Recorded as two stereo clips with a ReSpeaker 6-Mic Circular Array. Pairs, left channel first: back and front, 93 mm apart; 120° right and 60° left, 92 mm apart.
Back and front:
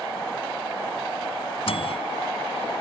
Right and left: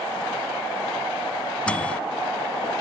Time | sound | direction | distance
1.7 | a microwave | 160° left | ?